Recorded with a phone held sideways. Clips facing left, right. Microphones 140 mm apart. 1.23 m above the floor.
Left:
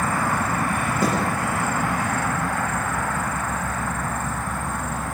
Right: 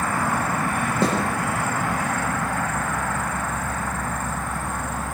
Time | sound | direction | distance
1.0 | a snare drum | 30° right (ahead or behind) | 9.5 m